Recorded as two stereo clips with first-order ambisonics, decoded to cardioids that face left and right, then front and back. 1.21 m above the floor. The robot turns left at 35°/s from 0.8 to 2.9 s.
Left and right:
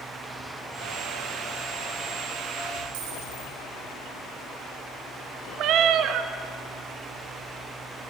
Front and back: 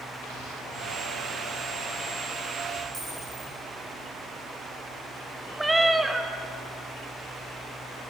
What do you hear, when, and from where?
2.9 s a dropped coin: 110° right, 5 m
5.6 s a cat meowing: 100° right, 0.5 m